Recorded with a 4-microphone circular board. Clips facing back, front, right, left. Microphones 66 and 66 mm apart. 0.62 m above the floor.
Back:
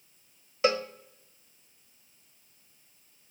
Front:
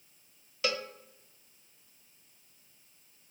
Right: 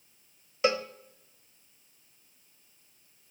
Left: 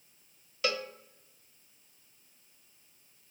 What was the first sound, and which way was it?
A cowbell, 140° right.